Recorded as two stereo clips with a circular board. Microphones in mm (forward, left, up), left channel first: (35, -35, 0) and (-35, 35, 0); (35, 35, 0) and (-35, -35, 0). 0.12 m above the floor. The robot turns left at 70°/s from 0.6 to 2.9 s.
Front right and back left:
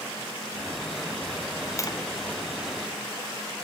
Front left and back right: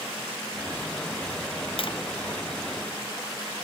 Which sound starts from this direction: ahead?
Tapping, at 1.8 s.